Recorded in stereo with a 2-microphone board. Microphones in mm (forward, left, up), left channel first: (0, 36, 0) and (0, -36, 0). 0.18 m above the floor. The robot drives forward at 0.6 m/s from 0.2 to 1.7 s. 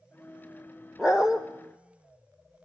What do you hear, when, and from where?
1.0 s a dog barking: 10° right (ahead or behind), 2 m; by 1.4 s 5° right (ahead or behind), 2.5 m